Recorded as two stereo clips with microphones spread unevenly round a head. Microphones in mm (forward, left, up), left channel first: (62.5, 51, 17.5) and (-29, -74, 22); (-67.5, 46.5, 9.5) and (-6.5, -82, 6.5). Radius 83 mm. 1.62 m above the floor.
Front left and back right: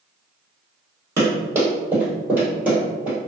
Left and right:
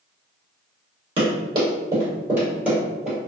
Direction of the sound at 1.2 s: 70° right.